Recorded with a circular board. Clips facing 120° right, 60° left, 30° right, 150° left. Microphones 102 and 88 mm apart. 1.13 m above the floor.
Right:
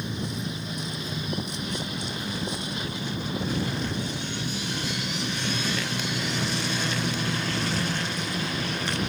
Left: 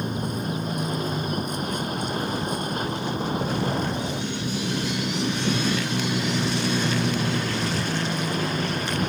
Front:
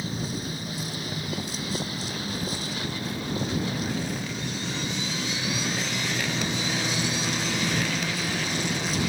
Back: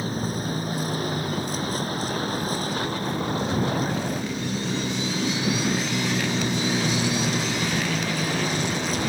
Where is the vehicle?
105° left.